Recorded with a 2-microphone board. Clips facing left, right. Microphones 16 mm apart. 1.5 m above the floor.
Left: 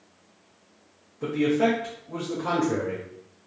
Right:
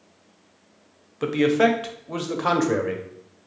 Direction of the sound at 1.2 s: 80° right.